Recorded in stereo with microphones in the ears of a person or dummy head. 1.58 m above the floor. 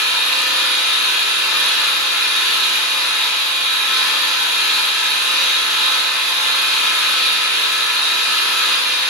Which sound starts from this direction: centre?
An engine running, at 0.0 s.